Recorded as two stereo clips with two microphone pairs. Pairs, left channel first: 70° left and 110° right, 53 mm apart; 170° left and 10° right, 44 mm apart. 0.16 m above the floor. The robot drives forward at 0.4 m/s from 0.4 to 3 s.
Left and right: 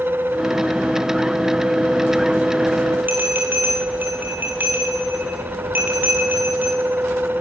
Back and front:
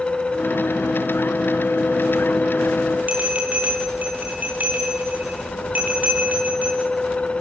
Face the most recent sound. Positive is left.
turn(degrees=-60)